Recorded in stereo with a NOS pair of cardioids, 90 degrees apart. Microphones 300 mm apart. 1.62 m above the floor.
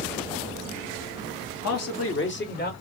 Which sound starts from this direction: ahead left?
A man speaking, at 1.6 s.